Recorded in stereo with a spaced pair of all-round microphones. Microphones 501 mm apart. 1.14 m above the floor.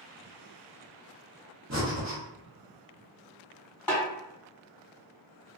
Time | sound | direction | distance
1.7 | breathing | 35° right (ahead or behind) | 0.9 m
3.9 | a snare drum | 45° left (ahead or behind) | 1.4 m